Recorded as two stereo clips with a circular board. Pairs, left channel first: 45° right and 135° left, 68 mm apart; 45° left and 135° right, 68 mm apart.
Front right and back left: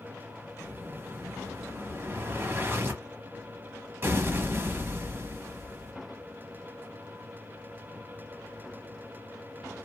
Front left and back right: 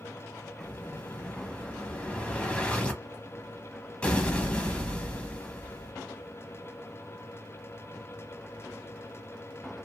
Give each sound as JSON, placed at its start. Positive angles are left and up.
{"t": 0.6, "sound": "an explosion", "azimuth_deg": 110, "distance_m": 0.9}